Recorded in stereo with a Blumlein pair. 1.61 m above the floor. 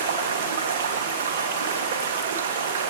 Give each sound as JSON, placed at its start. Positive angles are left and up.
{"t": 0.0, "sound": "running water", "azimuth_deg": -65, "distance_m": 1.9}